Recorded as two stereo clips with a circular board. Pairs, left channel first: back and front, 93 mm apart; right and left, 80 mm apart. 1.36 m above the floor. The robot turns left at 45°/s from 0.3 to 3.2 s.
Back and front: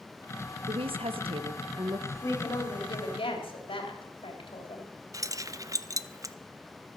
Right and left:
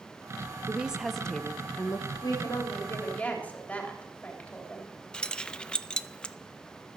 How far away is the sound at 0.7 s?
About 1.0 m.